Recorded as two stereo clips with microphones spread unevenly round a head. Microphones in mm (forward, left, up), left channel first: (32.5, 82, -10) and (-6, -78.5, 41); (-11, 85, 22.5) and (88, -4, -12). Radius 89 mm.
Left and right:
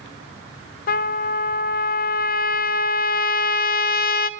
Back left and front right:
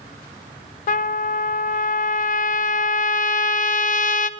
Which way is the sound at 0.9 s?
110° left.